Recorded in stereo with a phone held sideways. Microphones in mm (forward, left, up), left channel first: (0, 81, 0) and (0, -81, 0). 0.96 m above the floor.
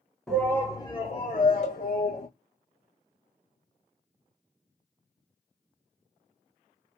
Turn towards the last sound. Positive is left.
turn(degrees=45)  # may be behind; listen again after turning